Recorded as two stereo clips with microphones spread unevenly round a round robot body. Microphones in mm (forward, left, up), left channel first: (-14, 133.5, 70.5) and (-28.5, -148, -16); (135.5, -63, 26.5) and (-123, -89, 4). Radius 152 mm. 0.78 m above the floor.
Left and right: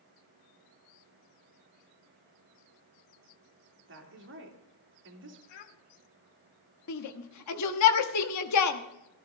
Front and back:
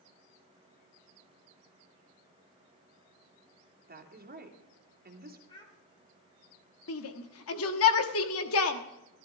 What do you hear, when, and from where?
3.9 s a woman speaking: 125° right, 2.5 m
5.5 s a child speaking: 80° left, 1.6 m
6.9 s a shout: 45° left, 1.3 m